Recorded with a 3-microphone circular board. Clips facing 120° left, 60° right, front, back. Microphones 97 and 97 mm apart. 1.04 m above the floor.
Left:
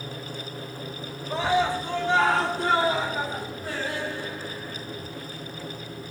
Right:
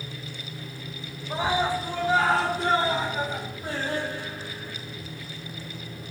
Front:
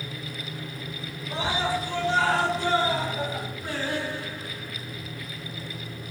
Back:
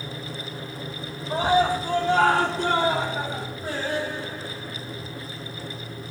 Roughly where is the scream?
Behind right.